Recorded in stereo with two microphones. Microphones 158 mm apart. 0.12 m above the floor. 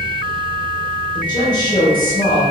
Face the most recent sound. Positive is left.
turn(degrees=30)  # may be behind; listen again after turning